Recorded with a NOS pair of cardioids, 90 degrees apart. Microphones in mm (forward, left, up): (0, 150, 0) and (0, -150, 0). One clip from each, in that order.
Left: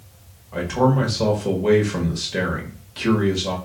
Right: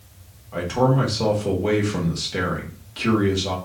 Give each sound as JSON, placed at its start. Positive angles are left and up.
{"t": 0.5, "sound": "a man speaking", "azimuth_deg": 0, "distance_m": 1.5}